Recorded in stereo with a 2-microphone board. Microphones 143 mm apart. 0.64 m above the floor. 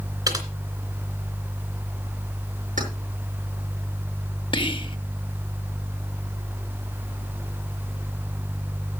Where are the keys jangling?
65° right (ahead or behind), 5.5 m.